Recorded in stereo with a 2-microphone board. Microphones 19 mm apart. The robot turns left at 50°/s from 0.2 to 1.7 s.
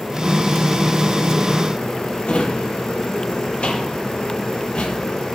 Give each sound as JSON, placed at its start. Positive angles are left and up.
{"t": 2.2, "sound": "a drawer", "side_deg": 85, "distance_m": 5.5}